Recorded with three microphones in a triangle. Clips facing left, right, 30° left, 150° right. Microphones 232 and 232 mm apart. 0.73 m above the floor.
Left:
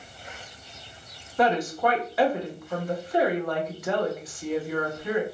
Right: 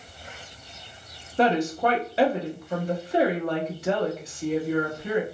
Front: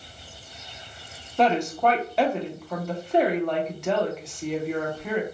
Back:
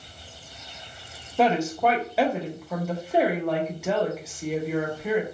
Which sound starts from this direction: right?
A woman speaking, at 1.4 s.